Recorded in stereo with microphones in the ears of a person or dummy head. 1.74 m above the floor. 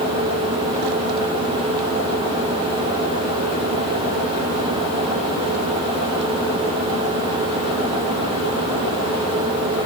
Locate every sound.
Only background noise.